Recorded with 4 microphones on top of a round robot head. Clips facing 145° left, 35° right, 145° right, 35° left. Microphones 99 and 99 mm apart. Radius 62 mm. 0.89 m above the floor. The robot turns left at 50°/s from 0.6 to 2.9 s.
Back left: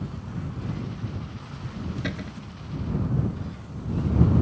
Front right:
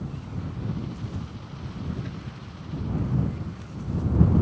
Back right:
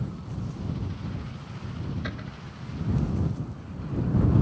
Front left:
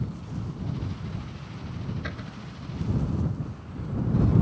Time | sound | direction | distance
2.0 | a cupboard door | 130° left | ?